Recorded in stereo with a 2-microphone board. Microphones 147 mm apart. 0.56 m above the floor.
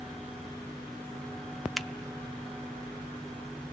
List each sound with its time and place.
1.8 s a finger snap: centre (ahead or behind), 0.8 m